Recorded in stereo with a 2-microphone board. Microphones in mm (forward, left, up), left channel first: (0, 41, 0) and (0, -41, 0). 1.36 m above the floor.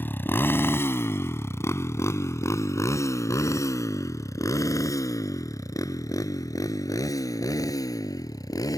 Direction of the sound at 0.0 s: 25° left (ahead or behind).